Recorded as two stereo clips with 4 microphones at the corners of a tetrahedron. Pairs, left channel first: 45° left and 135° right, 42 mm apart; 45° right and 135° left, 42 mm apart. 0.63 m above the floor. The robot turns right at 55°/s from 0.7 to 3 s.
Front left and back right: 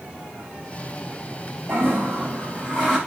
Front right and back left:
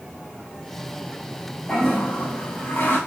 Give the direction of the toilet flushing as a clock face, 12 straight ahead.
4 o'clock.